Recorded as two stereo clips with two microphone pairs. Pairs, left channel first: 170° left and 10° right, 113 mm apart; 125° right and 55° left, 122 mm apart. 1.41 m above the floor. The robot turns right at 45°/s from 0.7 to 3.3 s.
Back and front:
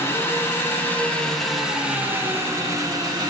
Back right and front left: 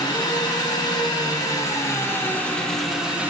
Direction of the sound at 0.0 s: 135° right.